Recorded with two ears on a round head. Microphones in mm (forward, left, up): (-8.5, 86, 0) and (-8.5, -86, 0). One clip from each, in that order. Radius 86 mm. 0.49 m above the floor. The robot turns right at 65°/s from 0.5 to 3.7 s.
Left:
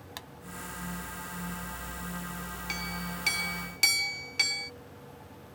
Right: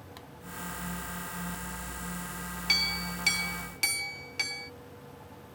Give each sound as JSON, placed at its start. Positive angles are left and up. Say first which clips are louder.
{"t": 0.2, "sound": "a pop", "louder": "left 8 dB", "side_deg": 50}
{"t": 2.7, "sound": "a clink", "louder": "right 9 dB", "azimuth_deg": -50}